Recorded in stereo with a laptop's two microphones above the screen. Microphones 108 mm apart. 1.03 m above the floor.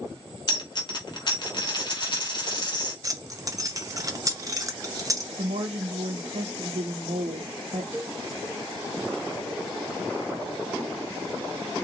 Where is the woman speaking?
70° right (ahead or behind), 0.7 m.